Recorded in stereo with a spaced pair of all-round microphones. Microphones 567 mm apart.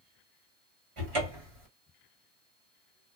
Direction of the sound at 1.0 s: 55° right (ahead or behind).